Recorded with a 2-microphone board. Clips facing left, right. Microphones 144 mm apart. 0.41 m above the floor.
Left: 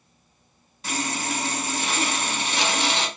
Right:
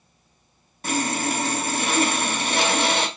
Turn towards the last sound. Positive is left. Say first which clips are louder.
# right 5 dB
turn(degrees=-50)  # may be behind; listen again after turning